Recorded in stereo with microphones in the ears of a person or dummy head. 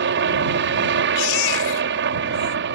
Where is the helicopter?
55° right (ahead or behind).